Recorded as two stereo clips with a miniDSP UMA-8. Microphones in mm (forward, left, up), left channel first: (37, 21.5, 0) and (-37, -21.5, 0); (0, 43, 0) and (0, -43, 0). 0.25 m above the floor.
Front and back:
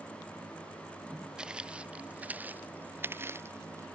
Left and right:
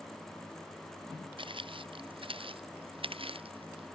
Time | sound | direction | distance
1.4 | footsteps | 70° right | ?